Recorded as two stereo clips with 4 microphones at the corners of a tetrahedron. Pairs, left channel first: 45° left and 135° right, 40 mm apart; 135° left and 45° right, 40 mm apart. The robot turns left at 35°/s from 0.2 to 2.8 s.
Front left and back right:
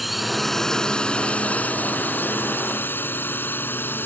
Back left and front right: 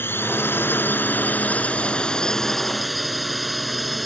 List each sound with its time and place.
0.0 s a drone: 135° left; by 4.1 s 45° left